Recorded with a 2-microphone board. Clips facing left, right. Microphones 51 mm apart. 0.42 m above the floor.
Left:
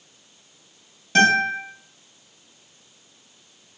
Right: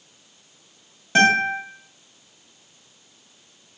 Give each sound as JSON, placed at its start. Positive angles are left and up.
{"t": 1.1, "sound": "a guitar", "side_deg": -25, "distance_m": 2.0}